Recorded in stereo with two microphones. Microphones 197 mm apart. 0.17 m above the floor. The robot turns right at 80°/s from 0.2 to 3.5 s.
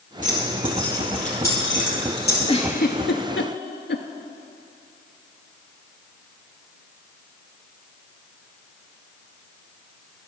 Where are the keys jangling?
45° right (ahead or behind), 3.5 m; by 2.4 s 50° left (ahead or behind), 3.5 m.